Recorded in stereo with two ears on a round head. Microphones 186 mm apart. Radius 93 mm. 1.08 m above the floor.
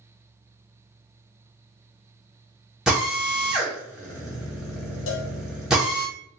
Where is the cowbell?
65° left (ahead or behind), 0.5 m.